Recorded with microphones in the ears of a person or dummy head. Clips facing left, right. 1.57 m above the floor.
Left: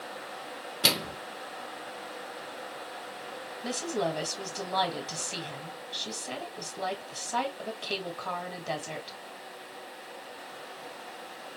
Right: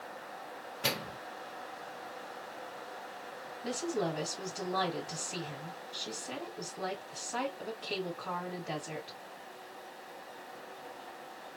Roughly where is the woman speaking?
Left.